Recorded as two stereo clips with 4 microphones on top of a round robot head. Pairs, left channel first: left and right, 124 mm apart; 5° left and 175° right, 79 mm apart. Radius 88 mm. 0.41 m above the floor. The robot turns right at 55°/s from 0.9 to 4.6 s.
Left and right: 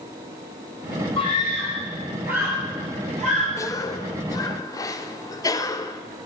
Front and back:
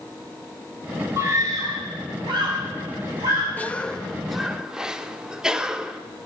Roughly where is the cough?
Ahead left.